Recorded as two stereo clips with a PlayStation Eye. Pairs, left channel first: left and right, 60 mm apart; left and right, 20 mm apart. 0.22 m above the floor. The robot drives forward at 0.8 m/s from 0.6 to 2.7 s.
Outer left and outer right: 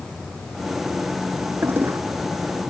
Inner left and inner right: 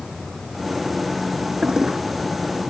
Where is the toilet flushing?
40° right (ahead or behind).